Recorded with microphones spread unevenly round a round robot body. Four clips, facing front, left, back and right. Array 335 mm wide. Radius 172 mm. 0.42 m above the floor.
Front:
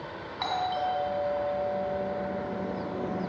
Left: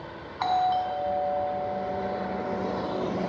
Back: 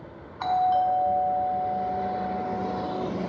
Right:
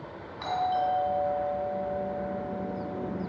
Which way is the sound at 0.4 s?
130° left.